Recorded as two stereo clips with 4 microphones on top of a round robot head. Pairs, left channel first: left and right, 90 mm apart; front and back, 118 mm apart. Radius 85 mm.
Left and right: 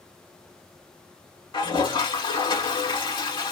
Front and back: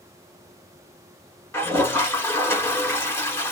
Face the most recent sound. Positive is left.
turn(degrees=65)